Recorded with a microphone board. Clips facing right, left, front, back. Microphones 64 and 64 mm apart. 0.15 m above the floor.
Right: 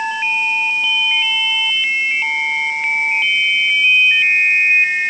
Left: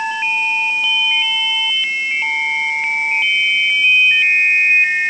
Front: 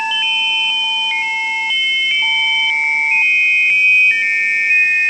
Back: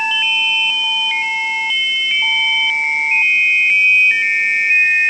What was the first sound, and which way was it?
Only background noise.